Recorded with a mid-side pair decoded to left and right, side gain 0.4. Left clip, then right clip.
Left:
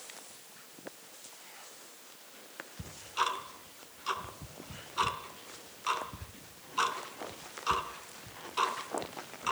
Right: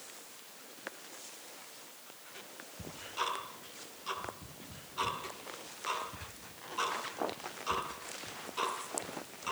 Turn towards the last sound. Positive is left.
turn(degrees=55)